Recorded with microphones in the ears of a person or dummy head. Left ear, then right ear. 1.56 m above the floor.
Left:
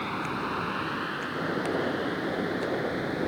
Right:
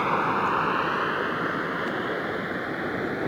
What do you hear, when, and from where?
0.0 s a vehicle: 40° right (ahead or behind); by 3.3 s 35° right (ahead or behind)